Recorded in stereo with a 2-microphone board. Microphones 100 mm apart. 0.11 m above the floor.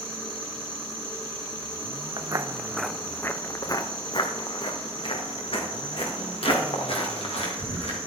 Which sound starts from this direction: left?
An insect, at 0.0 s.